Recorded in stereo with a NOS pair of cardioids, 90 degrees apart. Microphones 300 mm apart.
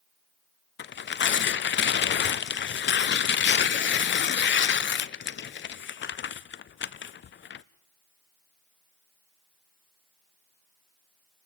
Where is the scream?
I don't hear a scream.